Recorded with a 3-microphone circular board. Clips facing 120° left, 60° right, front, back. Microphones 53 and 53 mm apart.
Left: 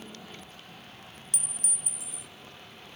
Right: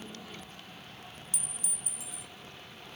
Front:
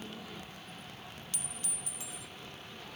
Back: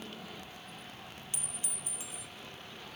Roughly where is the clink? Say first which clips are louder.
Left 2 dB, even; behind left.